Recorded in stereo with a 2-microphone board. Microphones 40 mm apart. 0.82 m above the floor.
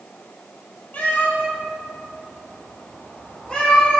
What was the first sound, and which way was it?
A cat meowing, 40° left (ahead or behind).